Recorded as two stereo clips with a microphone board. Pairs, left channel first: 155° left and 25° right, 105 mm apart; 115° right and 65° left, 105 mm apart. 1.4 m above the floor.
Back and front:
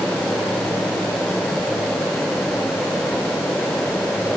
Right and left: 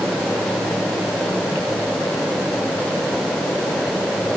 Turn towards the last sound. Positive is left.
No sound to turn to.